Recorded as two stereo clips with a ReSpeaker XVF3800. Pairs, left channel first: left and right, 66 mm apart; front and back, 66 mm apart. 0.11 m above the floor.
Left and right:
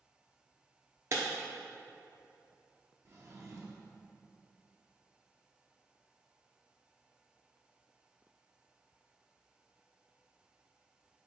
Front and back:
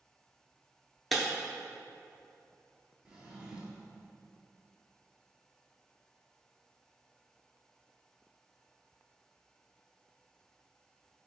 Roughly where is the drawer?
Right.